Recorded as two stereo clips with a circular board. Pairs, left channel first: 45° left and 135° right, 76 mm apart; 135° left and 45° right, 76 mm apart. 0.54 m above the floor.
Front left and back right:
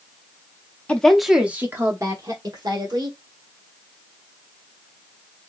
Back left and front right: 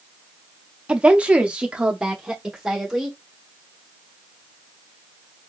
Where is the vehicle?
No vehicle in this recording.